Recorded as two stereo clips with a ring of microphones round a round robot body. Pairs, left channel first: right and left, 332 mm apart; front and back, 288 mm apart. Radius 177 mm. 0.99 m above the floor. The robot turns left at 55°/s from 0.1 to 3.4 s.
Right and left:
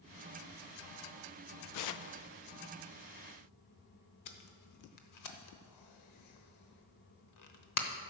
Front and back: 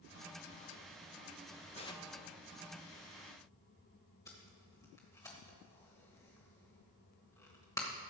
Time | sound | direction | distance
1.7 | tearing paper | 65° right | 0.5 m
4.3 | tape being pulled | 80° right | 0.9 m